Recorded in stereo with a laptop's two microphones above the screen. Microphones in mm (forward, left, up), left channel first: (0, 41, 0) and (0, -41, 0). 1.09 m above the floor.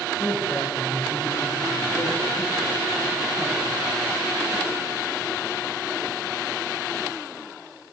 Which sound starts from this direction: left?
A man speaking, at 0.2 s.